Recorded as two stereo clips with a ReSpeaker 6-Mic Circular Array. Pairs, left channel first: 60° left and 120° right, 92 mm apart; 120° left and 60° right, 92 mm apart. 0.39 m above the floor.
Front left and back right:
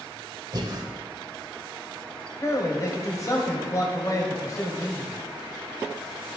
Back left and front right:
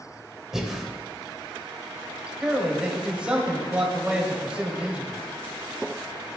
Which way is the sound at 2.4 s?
15° left.